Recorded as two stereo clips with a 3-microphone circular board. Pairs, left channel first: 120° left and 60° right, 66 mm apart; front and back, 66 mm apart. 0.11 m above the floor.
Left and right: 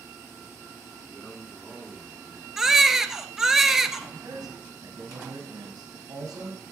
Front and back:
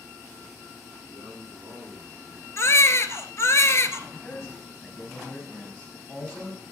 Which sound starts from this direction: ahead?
A baby crying, at 2.6 s.